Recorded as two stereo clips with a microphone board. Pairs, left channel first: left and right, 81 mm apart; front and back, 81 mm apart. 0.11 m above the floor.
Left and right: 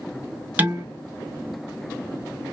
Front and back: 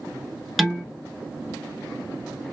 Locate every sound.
0.6 s dishes clattering: 90° right, 0.9 m